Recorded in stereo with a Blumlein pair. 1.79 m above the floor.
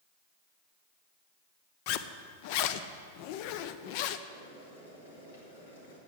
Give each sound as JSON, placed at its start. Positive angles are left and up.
{"t": 1.9, "sound": "a zipper", "azimuth_deg": 45, "distance_m": 0.5}
{"t": 4.3, "sound": "boiling", "azimuth_deg": 65, "distance_m": 3.0}